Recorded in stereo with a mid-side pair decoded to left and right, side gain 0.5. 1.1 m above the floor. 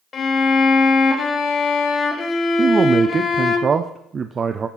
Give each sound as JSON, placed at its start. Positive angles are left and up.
{"t": 0.1, "sound": "a violin", "azimuth_deg": 45, "distance_m": 1.1}
{"t": 2.6, "sound": "a man speaking", "azimuth_deg": -35, "distance_m": 0.5}